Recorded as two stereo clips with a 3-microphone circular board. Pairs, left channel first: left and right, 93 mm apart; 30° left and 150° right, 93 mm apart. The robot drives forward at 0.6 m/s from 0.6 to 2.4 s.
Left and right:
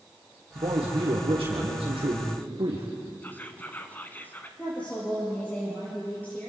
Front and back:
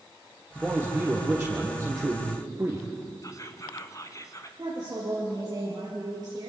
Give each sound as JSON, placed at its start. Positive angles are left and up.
{"t": 0.6, "sound": "a man speaking", "azimuth_deg": -70, "distance_m": 3.5}
{"t": 3.2, "sound": "whispering", "azimuth_deg": 35, "distance_m": 1.4}
{"t": 4.6, "sound": "a woman speaking", "azimuth_deg": 165, "distance_m": 4.5}